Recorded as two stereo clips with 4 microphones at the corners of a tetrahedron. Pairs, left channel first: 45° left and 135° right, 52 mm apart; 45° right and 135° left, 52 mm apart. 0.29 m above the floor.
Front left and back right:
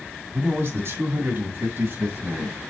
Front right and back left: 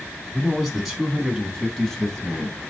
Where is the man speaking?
145° right, 3 m; by 2.6 s 120° right, 2.5 m.